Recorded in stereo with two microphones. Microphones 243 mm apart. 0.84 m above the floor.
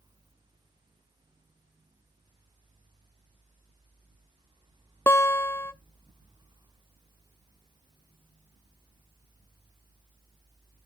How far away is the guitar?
About 0.5 m.